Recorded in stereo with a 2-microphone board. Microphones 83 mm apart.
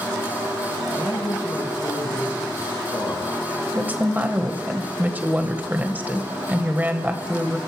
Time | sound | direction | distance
0.9 | a man speaking | 55° left (ahead or behind) | 5 m
3.7 | a woman speaking | 25° right (ahead or behind) | 1.6 m